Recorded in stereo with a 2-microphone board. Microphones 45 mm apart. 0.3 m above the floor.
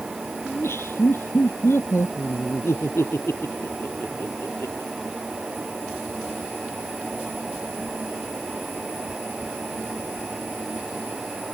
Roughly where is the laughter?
Left.